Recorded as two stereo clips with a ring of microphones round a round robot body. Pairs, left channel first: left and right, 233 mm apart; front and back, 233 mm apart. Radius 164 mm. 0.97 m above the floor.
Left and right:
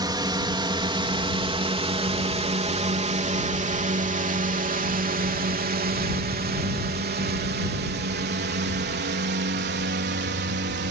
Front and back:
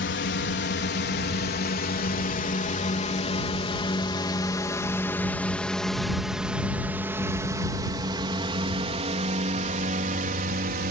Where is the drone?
25° right; by 10.9 s 130° right.